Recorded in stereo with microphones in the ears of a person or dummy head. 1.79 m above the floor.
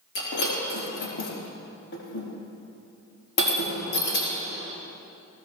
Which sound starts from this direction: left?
Breaking glass, at 0.1 s.